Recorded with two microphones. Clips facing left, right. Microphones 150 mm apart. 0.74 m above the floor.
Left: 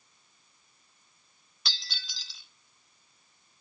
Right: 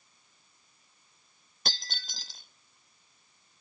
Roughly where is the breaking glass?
Right.